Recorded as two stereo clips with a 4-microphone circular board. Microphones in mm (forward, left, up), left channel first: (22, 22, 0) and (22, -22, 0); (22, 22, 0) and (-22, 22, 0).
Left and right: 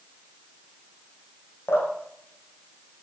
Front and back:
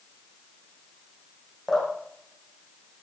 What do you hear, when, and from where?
1.7 s dripping: 80° left, 7 m